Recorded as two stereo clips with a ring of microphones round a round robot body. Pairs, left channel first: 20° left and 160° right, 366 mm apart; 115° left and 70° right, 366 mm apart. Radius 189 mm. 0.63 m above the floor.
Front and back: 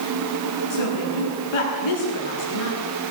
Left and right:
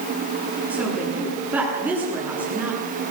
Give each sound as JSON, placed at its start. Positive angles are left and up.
{"t": 0.7, "sound": "a woman speaking", "azimuth_deg": 20, "distance_m": 9.5}